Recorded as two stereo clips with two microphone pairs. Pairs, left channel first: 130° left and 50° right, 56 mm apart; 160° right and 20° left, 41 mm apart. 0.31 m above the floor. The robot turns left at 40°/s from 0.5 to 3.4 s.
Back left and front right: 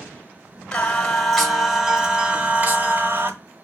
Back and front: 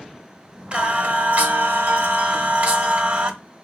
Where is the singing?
65° left, 0.9 m; by 3.3 s 40° right, 0.9 m.